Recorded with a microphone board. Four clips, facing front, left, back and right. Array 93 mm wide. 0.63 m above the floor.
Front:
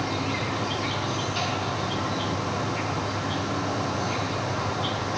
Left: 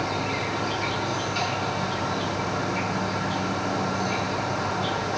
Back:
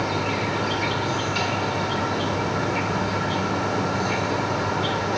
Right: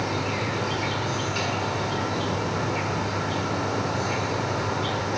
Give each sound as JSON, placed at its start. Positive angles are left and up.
{"t": 0.0, "sound": "an insect", "azimuth_deg": -170, "distance_m": 1.9}